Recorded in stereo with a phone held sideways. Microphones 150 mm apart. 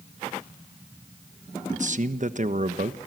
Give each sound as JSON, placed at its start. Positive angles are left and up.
{"t": 1.7, "sound": "a man speaking", "side_deg": -55, "distance_m": 1.1}